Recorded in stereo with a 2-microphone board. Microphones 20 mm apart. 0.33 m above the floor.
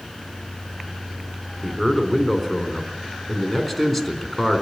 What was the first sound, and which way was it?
A man speaking, centre (ahead or behind).